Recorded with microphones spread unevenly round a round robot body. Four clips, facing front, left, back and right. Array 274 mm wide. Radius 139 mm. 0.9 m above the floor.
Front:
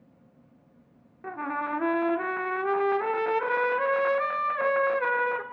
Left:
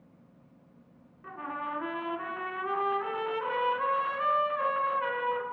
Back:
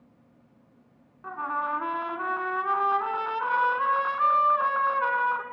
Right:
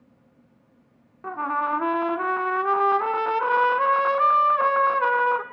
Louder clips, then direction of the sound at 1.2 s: Right 11 dB, back 1 dB; 55° right.